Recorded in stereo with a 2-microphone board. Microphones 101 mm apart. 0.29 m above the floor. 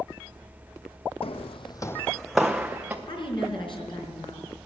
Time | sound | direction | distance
1.2 | footsteps | 65° left (ahead or behind) | 0.7 m
3.1 | a woman speaking | 50° left (ahead or behind) | 3.5 m